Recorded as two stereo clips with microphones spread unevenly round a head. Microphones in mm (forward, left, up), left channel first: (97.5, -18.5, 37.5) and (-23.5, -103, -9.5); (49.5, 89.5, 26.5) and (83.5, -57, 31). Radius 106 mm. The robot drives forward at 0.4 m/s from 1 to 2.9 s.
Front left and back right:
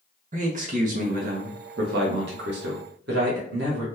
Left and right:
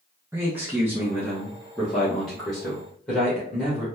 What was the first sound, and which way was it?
A man speaking, 140° right.